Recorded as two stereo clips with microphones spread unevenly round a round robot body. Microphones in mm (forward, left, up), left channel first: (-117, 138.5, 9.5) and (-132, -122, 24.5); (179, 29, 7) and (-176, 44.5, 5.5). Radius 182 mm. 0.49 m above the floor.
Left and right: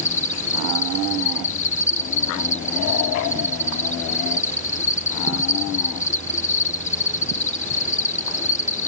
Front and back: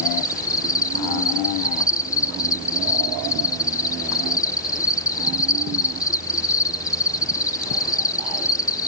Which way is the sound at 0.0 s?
70° left.